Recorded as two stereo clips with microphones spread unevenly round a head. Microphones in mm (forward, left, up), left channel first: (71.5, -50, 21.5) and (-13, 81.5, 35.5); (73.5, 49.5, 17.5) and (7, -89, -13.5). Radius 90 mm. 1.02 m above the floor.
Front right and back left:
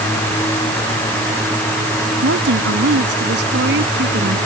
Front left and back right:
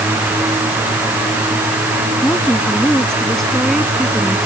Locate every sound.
2.2 s a woman speaking: 145° left; by 4.4 s 160° left